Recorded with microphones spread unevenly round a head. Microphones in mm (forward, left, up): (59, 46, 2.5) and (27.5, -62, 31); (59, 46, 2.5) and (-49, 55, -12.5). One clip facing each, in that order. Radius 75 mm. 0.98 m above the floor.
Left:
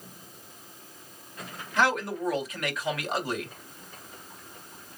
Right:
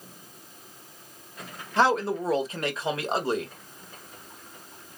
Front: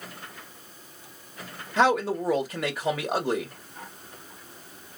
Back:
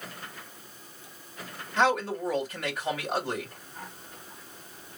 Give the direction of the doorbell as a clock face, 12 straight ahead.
No doorbell in this recording.